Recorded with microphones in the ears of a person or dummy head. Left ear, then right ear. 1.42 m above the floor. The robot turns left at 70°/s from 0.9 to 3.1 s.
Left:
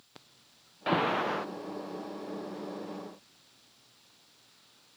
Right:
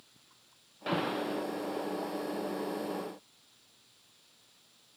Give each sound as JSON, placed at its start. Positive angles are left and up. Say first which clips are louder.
{"t": 0.9, "sound": "an alarm", "louder": "left 5 dB", "azimuth_deg": 165, "distance_m": 0.6}